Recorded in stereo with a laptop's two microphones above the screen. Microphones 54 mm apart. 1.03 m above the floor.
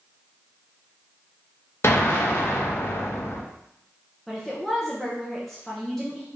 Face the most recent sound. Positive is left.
turn(degrees=5)  # may be behind; listen again after turning